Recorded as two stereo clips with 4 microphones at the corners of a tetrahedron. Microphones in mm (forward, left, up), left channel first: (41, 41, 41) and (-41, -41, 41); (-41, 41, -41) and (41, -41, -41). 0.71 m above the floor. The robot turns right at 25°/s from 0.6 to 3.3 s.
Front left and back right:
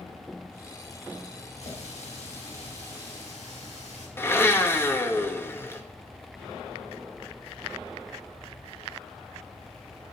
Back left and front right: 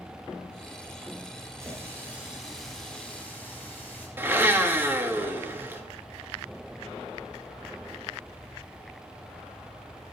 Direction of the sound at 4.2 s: Straight ahead.